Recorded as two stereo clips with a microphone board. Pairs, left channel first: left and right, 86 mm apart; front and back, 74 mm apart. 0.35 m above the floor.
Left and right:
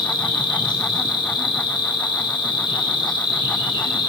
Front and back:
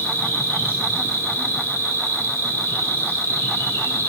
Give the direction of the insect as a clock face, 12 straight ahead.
10 o'clock.